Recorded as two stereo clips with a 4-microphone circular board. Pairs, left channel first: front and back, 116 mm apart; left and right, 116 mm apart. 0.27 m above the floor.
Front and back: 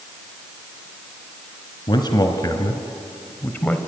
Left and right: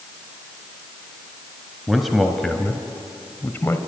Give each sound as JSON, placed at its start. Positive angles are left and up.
{"t": 1.9, "sound": "a man speaking", "azimuth_deg": -5, "distance_m": 1.7}